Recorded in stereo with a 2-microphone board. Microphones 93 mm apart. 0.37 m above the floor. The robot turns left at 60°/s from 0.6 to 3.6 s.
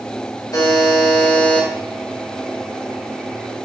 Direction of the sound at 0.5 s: 95° left.